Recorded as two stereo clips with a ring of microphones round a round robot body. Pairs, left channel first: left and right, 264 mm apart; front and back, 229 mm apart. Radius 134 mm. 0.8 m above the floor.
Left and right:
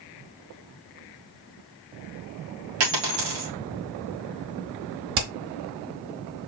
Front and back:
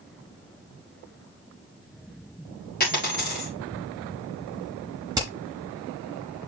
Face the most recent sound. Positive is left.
turn(degrees=-100)